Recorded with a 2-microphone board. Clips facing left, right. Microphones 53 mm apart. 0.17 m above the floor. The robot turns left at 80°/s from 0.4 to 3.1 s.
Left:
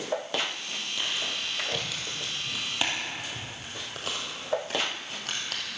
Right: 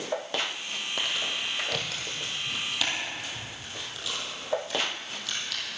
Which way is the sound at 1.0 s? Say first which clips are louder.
Right 2 dB; 55° right (ahead or behind).